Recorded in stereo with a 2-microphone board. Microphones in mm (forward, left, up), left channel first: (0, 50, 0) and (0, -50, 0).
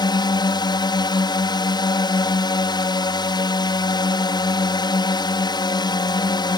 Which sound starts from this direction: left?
A drone, at 0.0 s.